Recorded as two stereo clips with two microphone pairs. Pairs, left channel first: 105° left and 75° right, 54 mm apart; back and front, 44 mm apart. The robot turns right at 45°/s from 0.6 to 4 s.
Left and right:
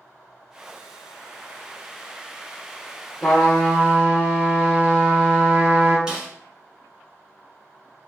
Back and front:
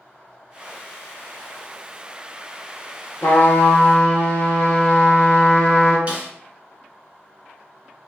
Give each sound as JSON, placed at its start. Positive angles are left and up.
{"t": 3.2, "sound": "a trumpet", "azimuth_deg": -170, "distance_m": 0.9}
{"t": 6.1, "sound": "a snare drum", "azimuth_deg": -10, "distance_m": 0.9}